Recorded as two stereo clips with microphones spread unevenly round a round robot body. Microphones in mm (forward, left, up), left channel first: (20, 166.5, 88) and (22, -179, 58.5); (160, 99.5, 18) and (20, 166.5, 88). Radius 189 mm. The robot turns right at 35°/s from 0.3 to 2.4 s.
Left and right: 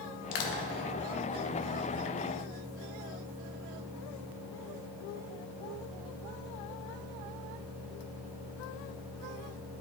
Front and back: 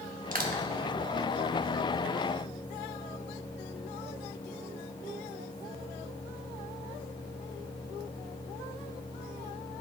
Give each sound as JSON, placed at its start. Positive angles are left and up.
{"t": 0.3, "sound": "crushing", "azimuth_deg": 105, "distance_m": 1.1}